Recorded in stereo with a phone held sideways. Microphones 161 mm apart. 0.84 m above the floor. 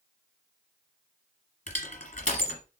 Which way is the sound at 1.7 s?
50° left (ahead or behind).